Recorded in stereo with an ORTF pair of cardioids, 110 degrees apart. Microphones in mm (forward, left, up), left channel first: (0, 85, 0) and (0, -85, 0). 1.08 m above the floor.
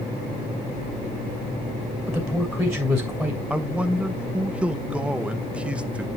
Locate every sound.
2.1 s a man speaking: 5° right, 2.5 m
3.5 s a man speaking: 5° right, 0.7 m